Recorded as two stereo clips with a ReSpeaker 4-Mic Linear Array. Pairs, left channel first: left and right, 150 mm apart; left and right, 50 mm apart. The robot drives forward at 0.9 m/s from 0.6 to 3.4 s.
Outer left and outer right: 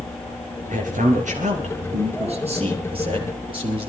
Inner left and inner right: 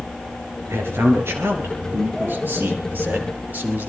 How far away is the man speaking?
About 2.5 m.